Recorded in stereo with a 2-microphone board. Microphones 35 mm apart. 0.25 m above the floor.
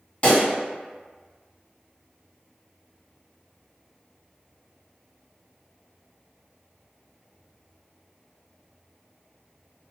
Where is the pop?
35° left (ahead or behind), 1.6 m.